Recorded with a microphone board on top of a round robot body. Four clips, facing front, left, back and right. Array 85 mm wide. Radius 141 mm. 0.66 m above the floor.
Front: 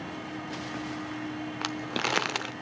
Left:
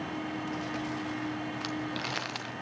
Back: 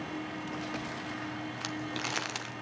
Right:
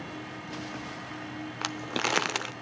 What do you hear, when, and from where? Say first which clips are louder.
1.6 s crumpling: right 2 dB, front 7 dB; 45° right, 0.8 m